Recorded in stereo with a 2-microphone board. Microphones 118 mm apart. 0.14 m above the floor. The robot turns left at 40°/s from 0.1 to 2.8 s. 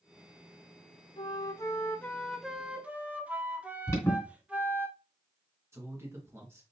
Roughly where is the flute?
Ahead left.